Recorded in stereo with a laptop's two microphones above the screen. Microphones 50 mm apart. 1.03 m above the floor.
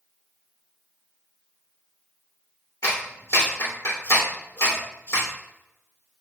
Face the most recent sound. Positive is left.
turn(degrees=75)  # may be behind; listen again after turning